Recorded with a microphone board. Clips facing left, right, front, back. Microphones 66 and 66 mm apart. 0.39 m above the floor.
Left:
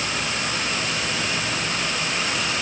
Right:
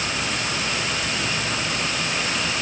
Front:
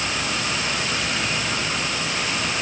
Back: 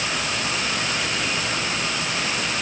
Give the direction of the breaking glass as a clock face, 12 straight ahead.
No breaking glass in this recording.